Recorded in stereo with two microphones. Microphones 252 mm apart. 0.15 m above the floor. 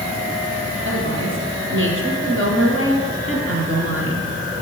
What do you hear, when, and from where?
0.8 s a woman speaking: 50° right (ahead or behind), 4 m